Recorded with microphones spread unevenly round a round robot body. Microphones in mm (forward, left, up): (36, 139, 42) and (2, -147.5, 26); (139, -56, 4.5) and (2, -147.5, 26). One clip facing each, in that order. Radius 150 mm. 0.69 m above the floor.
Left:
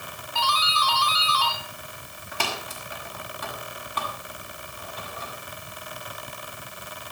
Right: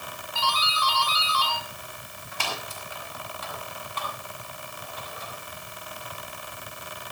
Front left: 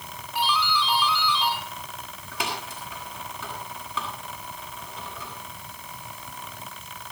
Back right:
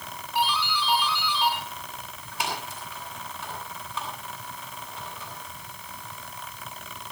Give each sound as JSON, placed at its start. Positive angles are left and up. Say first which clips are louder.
{"t": 0.3, "sound": "a doorbell", "louder": "left 2 dB, front left 1 dB", "azimuth_deg": 60, "distance_m": 8.0}